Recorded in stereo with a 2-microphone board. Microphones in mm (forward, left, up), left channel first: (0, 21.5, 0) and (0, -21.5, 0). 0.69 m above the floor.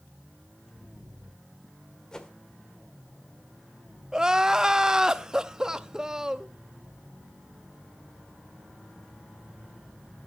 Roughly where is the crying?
Centre.